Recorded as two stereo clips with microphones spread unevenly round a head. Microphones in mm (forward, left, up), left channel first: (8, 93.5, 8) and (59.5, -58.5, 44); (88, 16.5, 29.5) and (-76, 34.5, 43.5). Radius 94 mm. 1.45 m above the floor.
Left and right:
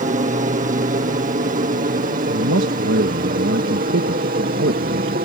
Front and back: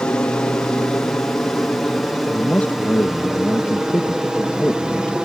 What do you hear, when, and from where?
0.0 s an aircraft: 80° right; by 5.3 s 100° right
2.3 s a man speaking: 90° right